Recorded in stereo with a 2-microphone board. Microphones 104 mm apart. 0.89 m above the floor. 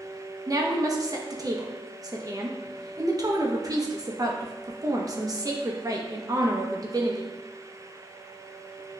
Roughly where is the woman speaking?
Right.